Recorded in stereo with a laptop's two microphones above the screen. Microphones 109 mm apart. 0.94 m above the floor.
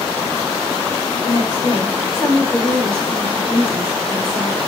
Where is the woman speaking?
40° left (ahead or behind), 1.6 m; by 4.7 s 30° right (ahead or behind), 1.6 m.